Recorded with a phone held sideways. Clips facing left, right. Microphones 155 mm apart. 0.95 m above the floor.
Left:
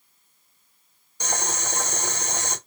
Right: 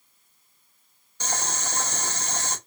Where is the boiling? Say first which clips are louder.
Left 2 dB; 15° left (ahead or behind), 2.5 m.